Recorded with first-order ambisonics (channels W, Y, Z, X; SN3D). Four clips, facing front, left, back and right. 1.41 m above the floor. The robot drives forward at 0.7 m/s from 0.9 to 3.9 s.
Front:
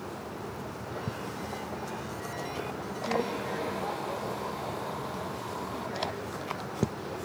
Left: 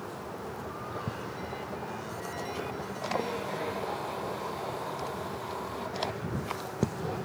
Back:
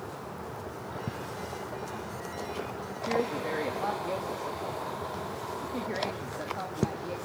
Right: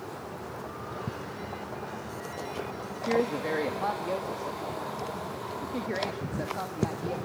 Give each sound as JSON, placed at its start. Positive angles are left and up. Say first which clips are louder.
{"t": 3.1, "sound": "a woman speaking", "louder": "right 6 dB, back 1 dB", "azimuth_deg": -100, "distance_m": 2.0}